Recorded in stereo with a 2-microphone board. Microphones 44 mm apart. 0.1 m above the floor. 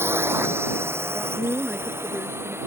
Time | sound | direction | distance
0.0 | a drone | 70° right (ahead or behind) | ?
1.1 | a man speaking | 30° right (ahead or behind) | ?